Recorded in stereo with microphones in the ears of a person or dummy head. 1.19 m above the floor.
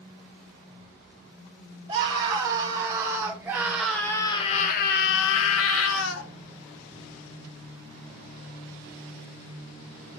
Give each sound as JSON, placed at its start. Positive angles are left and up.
{"t": 1.9, "sound": "a scream", "side_deg": -35, "distance_m": 2.5}